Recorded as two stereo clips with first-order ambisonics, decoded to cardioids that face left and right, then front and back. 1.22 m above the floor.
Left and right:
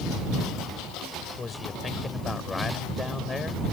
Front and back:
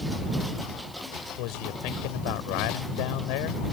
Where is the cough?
No cough in this recording.